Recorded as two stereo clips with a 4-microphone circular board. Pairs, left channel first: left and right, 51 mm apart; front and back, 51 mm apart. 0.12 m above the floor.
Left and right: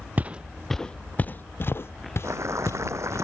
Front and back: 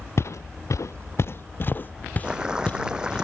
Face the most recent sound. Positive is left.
turn(degrees=-110)